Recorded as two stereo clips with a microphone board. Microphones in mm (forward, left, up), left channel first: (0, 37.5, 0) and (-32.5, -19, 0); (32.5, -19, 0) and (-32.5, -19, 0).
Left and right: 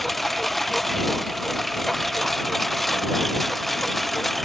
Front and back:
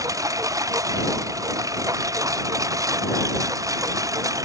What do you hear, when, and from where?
0.0 s a lawn mower: 145° left